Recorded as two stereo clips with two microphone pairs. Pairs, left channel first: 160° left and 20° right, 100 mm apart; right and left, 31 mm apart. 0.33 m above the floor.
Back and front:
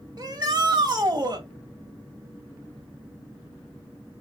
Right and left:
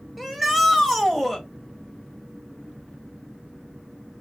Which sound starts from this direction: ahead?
A shout, at 0.2 s.